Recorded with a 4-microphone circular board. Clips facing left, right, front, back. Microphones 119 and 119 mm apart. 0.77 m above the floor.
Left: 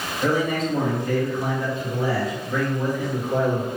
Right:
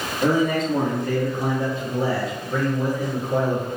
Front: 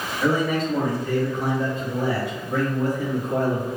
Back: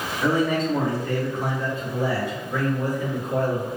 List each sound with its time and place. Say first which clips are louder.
0.2 s a man speaking: right 2 dB, even; 95° right, 1.3 m; by 3.7 s straight ahead, 1.7 m